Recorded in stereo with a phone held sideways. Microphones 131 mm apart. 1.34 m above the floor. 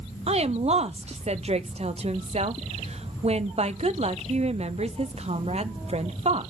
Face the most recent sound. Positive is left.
turn(degrees=-55)  # may be behind; listen again after turning